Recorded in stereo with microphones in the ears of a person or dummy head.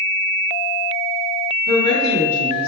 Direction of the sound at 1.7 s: 50° right (ahead or behind).